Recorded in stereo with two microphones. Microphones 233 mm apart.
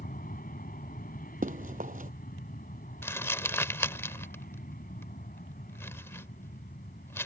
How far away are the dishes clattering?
I don't hear dishes clattering.